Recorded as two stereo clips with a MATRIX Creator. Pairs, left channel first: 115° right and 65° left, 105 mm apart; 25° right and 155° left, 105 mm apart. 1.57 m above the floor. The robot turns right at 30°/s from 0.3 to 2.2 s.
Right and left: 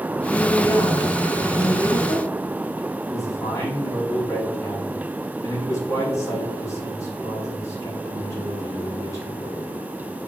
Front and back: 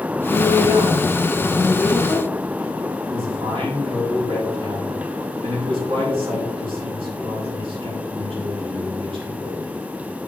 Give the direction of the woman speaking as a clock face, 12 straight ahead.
6 o'clock.